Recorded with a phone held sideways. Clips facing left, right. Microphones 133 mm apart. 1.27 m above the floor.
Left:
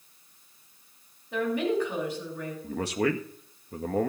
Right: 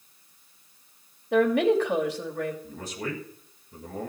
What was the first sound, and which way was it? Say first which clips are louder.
A woman speaking: right 6 dB; 85° right.